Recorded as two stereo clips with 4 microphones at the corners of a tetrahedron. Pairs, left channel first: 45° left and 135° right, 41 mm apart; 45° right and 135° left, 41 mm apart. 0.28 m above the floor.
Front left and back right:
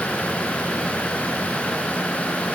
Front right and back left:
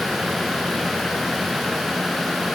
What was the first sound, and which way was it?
Only background noise.